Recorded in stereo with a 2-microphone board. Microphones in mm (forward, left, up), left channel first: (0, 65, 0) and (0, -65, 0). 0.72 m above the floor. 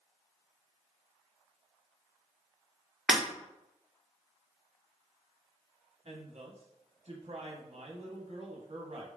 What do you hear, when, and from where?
3.1 s breaking glass: centre (ahead or behind), 1.2 m
6.0 s a woman speaking: 55° right (ahead or behind), 0.8 m